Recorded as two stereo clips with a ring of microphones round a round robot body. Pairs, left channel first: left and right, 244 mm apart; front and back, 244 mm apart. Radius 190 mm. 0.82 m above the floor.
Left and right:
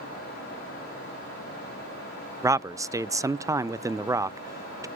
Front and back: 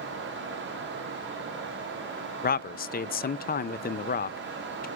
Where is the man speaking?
15° right, 0.5 m.